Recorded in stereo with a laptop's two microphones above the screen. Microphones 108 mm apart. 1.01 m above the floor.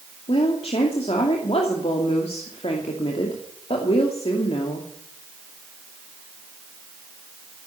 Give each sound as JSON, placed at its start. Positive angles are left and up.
{"t": 0.3, "sound": "a woman speaking", "side_deg": 70, "distance_m": 2.5}